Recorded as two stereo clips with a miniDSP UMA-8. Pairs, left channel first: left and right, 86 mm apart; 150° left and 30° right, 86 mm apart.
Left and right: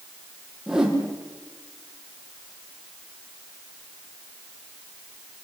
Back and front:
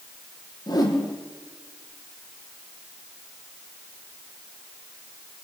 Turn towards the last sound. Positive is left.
turn(degrees=-175)